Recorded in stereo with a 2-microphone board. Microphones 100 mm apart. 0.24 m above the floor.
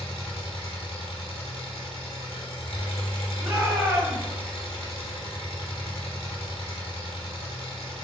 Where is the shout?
25° right (ahead or behind), 1.2 m.